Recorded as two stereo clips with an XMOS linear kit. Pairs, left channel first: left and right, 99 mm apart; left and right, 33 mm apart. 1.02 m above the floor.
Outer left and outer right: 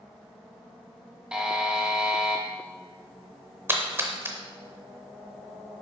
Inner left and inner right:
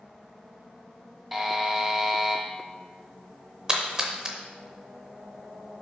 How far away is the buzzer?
About 0.9 m.